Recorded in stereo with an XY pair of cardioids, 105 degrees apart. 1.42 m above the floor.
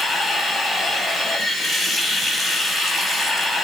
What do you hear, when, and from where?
0.0 s running water: 15° left, 6.5 m